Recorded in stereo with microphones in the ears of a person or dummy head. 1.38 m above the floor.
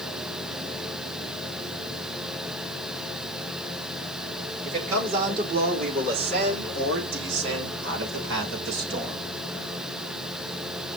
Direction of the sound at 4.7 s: 50° right (ahead or behind).